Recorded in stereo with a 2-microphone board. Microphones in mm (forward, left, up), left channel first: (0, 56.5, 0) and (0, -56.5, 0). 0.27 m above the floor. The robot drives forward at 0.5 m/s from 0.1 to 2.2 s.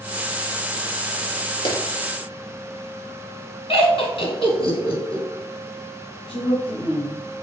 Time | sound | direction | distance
1.6 | a clap | 55° left (ahead or behind) | 4.5 m
3.7 | laughter | 55° left (ahead or behind) | 3.5 m
6.3 | a woman speaking | 50° left (ahead or behind) | 3 m